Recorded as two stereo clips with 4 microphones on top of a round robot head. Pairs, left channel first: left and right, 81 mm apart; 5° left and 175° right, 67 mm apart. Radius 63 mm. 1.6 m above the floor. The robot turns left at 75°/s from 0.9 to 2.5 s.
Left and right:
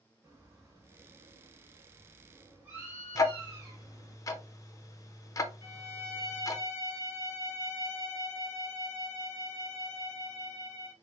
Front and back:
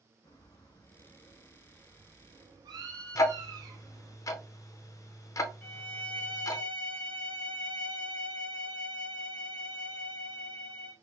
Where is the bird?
35° right, 1.2 m; by 4.2 s 155° right, 1.2 m.